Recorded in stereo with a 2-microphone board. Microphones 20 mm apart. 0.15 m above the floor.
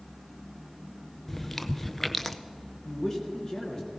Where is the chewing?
15° left (ahead or behind), 0.7 m.